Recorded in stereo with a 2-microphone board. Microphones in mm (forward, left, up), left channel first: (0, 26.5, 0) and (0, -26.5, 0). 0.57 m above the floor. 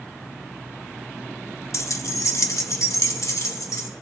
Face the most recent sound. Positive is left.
turn(degrees=80)